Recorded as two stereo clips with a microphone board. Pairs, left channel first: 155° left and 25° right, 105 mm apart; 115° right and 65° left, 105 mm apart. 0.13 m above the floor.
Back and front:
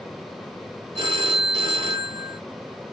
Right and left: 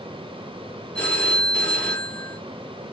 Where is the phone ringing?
35° right, 1.4 m.